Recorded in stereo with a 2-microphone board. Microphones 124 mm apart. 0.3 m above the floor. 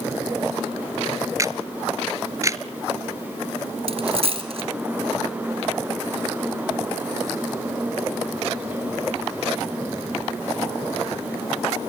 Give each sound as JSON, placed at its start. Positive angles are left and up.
{"t": 1.4, "sound": "a camera shutter", "side_deg": -25, "distance_m": 0.9}
{"t": 3.9, "sound": "a dropped coin", "side_deg": -50, "distance_m": 3.0}